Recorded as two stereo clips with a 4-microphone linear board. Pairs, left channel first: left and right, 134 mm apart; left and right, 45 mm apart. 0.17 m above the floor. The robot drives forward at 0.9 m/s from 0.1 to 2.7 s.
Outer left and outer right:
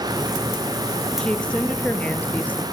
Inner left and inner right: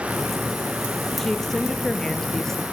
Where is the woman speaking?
5° left (ahead or behind), 4 m; by 2.6 s 10° left (ahead or behind), 2.5 m.